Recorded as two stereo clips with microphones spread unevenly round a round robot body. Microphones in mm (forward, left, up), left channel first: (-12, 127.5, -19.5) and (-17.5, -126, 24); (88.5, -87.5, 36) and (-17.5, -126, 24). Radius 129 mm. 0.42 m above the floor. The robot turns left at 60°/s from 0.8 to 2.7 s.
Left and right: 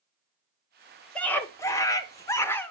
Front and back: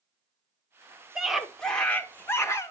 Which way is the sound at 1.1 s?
140° left.